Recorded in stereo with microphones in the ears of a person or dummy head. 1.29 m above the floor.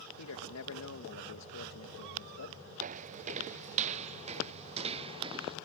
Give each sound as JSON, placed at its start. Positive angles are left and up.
{"t": 0.2, "sound": "a man speaking", "side_deg": 85}
{"t": 2.8, "sound": "footsteps", "side_deg": -40}